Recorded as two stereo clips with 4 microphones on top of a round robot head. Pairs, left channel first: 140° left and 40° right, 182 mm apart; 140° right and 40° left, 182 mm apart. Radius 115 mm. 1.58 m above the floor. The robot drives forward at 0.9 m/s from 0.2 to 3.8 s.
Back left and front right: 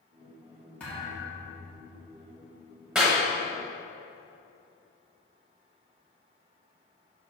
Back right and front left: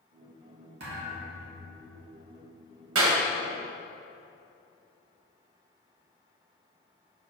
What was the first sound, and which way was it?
A thud, 60° left.